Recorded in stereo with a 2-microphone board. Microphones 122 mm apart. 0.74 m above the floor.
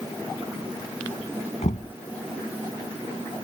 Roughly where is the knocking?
Left.